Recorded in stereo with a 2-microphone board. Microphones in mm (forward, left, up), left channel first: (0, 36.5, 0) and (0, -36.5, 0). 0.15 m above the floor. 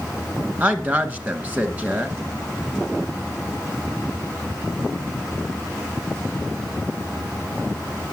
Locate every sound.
0.6 s a woman speaking: 20° right (ahead or behind), 2.0 m